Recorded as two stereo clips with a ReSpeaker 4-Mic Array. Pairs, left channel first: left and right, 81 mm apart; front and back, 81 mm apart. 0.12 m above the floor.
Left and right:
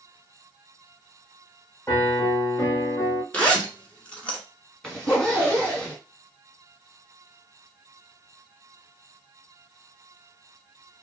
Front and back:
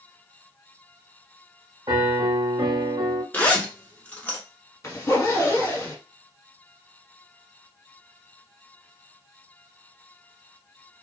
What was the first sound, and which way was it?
A piano, 145° left.